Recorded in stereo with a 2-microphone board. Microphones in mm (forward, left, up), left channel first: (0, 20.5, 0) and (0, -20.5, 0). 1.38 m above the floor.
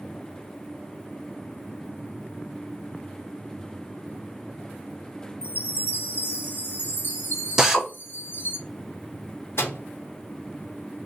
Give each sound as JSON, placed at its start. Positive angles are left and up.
{"t": 5.4, "sound": "a chime", "side_deg": 55, "distance_m": 1.8}
{"t": 7.6, "sound": "a drill", "side_deg": -10, "distance_m": 0.8}
{"t": 9.6, "sound": "a microwave", "side_deg": 75, "distance_m": 1.2}